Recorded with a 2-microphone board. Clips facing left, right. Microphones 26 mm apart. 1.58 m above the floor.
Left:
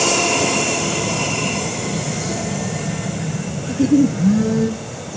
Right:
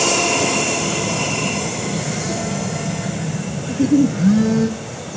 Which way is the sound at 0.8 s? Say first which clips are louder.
Even; 75° right (ahead or behind).